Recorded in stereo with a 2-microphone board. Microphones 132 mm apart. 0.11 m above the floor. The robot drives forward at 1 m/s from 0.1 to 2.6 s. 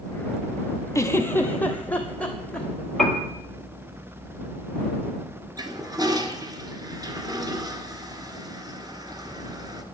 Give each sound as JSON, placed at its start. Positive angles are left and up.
{"t": 0.9, "sound": "a giggle", "side_deg": 20, "distance_m": 0.9}
{"t": 3.0, "sound": "a piano", "side_deg": 5, "distance_m": 1.7}
{"t": 5.6, "sound": "a toilet flushing", "side_deg": -30, "distance_m": 1.6}